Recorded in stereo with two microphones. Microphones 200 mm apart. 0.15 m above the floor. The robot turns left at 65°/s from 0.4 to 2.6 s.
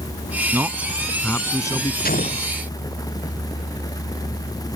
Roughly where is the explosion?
Ahead left.